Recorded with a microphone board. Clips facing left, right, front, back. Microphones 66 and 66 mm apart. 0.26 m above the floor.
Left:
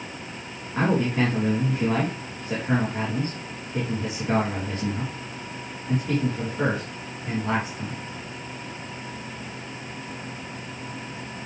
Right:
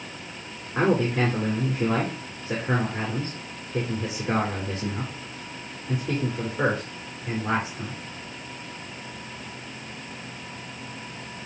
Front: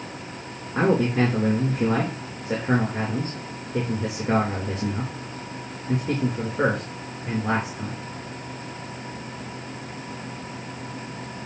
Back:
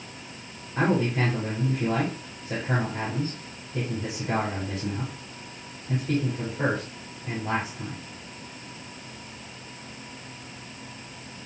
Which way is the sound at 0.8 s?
15° right.